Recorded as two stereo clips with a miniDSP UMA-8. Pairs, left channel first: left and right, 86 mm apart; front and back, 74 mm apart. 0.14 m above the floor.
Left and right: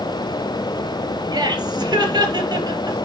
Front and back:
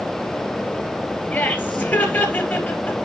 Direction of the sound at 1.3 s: 60° right.